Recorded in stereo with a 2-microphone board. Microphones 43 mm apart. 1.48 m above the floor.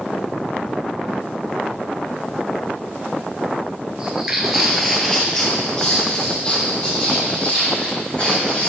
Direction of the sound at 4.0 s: 20° right (ahead or behind).